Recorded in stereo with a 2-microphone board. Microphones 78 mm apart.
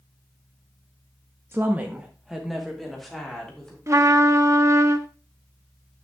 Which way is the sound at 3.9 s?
40° right (ahead or behind).